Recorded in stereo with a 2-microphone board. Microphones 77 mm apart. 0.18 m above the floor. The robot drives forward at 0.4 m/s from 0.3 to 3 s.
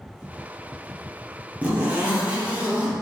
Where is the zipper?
20° right (ahead or behind), 2 m; by 2.9 s 15° right (ahead or behind), 2.5 m.